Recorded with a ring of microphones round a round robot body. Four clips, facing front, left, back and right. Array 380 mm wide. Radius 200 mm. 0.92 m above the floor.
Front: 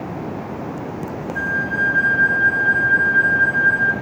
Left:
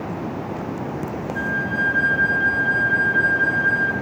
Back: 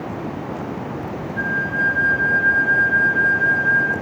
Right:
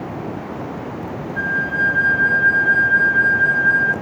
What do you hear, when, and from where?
1.4 s a flute: 10° left, 5.5 m